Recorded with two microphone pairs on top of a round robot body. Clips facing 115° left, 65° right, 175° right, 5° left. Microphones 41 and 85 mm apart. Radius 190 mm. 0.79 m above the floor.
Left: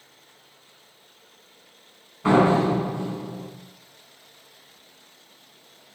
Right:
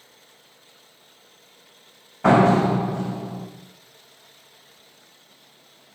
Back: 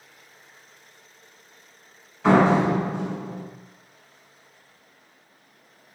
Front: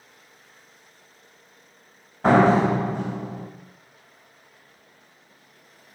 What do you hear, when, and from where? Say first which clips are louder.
2.2 s a door slam: right 2 dB, front 1 dB; 45° right, 4 m